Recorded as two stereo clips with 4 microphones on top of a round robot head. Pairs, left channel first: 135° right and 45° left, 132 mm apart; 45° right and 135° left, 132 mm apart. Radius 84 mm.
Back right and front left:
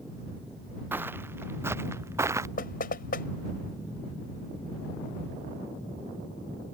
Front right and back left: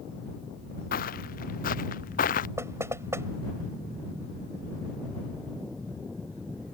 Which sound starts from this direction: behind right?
Knocking, at 2.6 s.